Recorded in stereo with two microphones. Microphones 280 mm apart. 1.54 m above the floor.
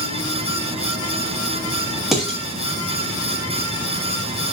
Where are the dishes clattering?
Centre (ahead or behind), 1.2 m.